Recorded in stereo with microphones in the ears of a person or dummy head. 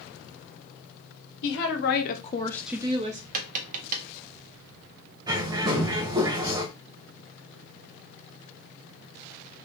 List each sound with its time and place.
1.4 s a woman speaking: 70° left (ahead or behind), 1.2 m; by 3.2 s 35° right (ahead or behind), 0.7 m
3.3 s tapping: 50° right (ahead or behind), 0.6 m
5.3 s a bird: 25° right (ahead or behind), 0.6 m